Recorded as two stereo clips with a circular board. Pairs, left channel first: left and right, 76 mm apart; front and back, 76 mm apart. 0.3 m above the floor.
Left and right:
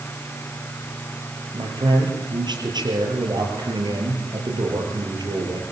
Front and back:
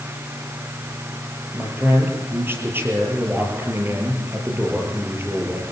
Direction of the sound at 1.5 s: 120° right.